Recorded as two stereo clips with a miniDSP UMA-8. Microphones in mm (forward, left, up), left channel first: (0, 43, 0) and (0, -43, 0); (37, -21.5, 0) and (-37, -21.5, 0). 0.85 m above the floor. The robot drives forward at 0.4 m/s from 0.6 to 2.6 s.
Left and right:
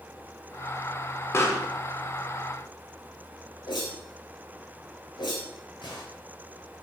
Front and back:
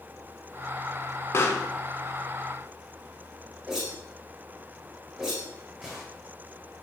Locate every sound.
1.3 s a pop: 45° left, 0.8 m; by 1.7 s 55° left, 0.7 m
3.7 s a whoosh: 105° left, 1.7 m